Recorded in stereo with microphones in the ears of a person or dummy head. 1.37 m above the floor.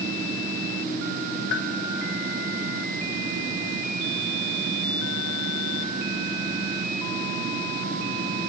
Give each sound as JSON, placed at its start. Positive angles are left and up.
{"t": 1.5, "sound": "a bell", "side_deg": 70, "distance_m": 1.4}